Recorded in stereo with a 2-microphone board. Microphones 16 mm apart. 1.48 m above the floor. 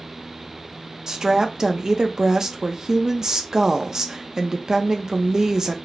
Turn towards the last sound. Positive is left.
turn(degrees=-35)  # may be behind; listen again after turning